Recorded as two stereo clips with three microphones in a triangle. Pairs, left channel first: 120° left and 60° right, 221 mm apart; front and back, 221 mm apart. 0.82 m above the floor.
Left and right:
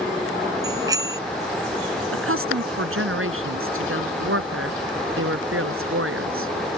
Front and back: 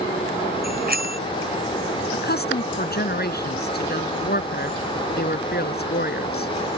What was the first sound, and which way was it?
A bicycle bell, 135° right.